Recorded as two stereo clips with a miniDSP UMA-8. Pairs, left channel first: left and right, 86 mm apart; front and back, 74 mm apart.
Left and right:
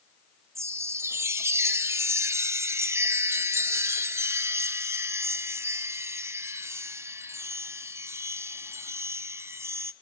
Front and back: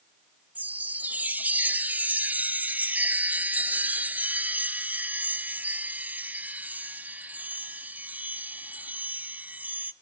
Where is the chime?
130° right, 0.6 m.